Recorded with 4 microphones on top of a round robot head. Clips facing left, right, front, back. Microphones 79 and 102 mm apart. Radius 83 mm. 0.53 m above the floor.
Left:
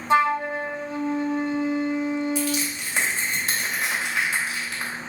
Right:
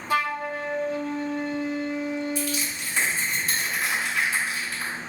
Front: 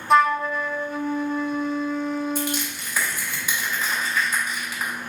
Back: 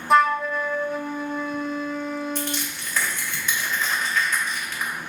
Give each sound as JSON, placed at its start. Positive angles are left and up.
{"t": 0.1, "sound": "a flute", "azimuth_deg": 90, "distance_m": 0.5}
{"t": 2.4, "sound": "crushing", "azimuth_deg": 80, "distance_m": 3.0}